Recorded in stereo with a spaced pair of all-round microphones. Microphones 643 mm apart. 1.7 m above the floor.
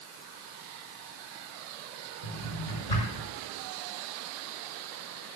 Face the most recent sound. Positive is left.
turn(degrees=80)